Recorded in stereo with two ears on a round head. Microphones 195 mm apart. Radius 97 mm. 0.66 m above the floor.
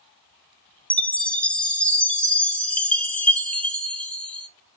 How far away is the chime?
About 0.5 m.